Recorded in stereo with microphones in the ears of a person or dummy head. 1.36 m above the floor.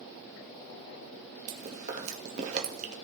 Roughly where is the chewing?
Right.